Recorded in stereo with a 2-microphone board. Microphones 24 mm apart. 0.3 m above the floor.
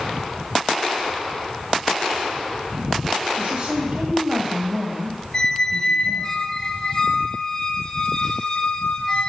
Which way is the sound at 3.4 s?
25° right (ahead or behind).